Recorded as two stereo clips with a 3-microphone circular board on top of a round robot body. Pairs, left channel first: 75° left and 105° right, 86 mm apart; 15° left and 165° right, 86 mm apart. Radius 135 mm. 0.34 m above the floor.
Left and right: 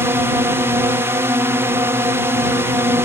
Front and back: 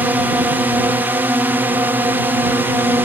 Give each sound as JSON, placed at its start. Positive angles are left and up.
{"t": 0.0, "sound": "a drone", "azimuth_deg": -120}